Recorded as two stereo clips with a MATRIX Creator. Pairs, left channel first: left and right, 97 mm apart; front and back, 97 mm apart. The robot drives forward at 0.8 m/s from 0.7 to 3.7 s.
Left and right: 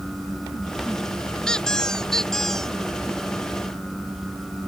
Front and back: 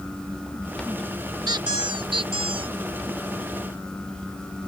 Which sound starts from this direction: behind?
A squeak, at 1.5 s.